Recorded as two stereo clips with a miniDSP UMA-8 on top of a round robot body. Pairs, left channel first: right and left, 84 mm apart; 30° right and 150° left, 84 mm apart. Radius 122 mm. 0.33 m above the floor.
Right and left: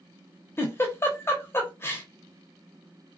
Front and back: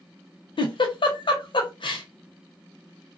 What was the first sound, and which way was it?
A giggle, 30° right.